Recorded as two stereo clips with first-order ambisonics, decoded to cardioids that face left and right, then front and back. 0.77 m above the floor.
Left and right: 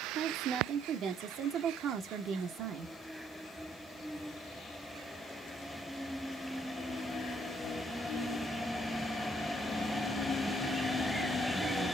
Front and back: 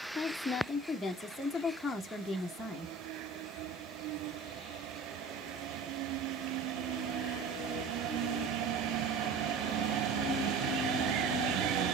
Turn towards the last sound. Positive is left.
turn(degrees=-80)